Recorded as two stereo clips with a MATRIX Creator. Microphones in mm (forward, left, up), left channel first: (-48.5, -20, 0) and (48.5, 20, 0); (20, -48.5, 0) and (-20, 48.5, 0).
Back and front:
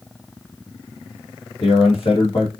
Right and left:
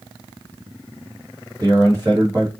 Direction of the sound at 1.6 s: 170° left.